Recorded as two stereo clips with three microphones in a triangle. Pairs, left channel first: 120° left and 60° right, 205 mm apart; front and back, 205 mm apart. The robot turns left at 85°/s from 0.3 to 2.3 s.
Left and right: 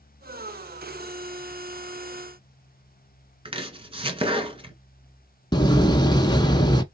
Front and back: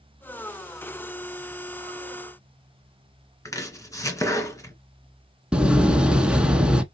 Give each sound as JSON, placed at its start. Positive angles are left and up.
{"t": 3.5, "sound": "chopping", "azimuth_deg": -55, "distance_m": 1.6}
{"t": 5.5, "sound": "a door slam", "azimuth_deg": 105, "distance_m": 1.0}